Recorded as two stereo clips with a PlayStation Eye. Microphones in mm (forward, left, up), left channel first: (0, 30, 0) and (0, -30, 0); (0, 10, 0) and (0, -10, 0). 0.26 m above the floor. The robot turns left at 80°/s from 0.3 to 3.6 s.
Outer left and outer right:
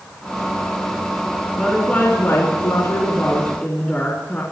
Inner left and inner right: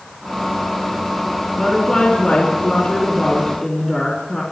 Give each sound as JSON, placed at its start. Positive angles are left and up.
{"t": 1.6, "sound": "a woman speaking", "azimuth_deg": -175, "distance_m": 3.5}